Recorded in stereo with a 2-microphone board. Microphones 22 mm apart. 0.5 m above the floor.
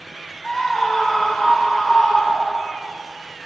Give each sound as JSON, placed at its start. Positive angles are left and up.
{"t": 0.4, "sound": "a scream", "side_deg": 25, "distance_m": 1.3}